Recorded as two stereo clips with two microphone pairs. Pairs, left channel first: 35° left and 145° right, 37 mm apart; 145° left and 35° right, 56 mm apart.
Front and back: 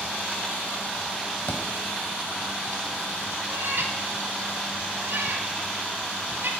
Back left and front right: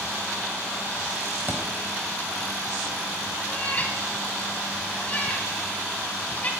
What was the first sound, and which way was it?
A thud, 15° left.